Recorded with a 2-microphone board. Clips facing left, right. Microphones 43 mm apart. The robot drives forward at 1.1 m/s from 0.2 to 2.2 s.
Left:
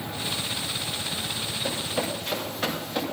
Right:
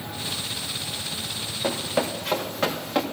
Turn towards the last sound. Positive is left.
turn(degrees=-85)